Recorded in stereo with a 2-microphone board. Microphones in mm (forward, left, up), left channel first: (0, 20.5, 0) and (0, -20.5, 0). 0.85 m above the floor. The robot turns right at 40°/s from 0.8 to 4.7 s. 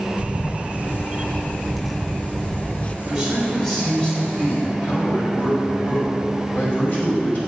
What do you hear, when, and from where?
0.2 s a camera shutter: 45° right, 0.6 m; by 3.0 s 40° left, 0.6 m
3.0 s a man speaking: 20° right, 5 m; by 7.4 s 45° left, 5 m